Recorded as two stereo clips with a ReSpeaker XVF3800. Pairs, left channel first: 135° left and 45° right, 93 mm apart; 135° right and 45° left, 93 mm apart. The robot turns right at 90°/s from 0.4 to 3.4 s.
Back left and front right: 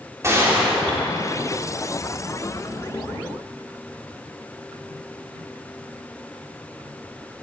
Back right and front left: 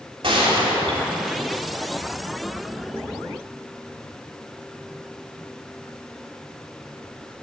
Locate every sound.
0.2 s a gunshot: 20° left, 3 m; by 1.4 s 105° left, 3 m